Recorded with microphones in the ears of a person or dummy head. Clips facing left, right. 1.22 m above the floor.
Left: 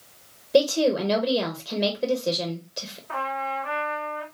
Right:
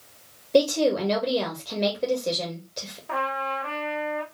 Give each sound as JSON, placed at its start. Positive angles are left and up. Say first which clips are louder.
{"t": 0.5, "sound": "a woman speaking", "louder": "even", "side_deg": 5, "distance_m": 1.0}
{"t": 3.1, "sound": "a trumpet", "louder": "right 1 dB", "side_deg": -70, "distance_m": 1.9}